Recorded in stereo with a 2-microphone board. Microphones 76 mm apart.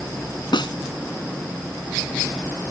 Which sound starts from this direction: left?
A snare drum, at 0.5 s.